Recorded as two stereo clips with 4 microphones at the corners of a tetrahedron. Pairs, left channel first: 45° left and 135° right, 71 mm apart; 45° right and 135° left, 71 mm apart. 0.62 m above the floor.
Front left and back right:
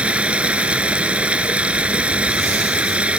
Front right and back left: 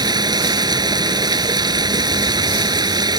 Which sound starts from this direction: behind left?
Running water, at 0.0 s.